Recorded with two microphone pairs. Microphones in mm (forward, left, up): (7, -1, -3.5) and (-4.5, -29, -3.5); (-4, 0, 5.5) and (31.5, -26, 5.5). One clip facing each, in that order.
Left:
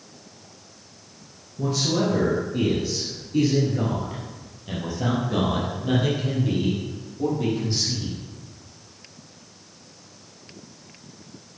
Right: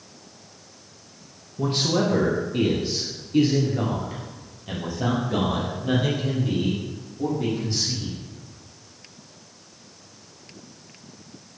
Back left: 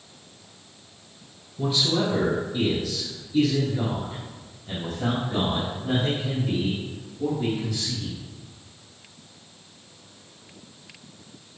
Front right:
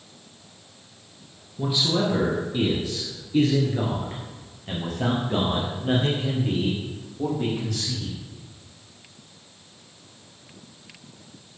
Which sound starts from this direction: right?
A man speaking, at 1.6 s.